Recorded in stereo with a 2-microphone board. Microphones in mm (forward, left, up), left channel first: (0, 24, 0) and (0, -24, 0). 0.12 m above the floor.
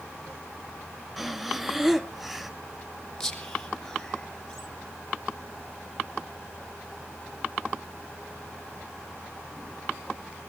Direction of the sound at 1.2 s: 5° right (ahead or behind).